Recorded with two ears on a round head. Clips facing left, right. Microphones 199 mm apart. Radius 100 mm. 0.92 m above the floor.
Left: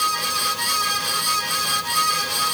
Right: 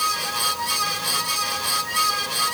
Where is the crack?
No crack in this recording.